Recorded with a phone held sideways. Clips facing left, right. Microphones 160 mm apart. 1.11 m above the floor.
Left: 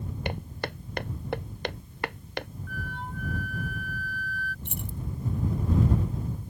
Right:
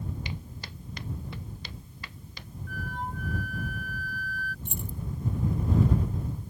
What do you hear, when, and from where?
0.2 s footsteps: 60° left (ahead or behind); by 2.5 s 65° left (ahead or behind)
2.7 s a flute: 45° right (ahead or behind)
4.7 s keys jangling: 75° left (ahead or behind)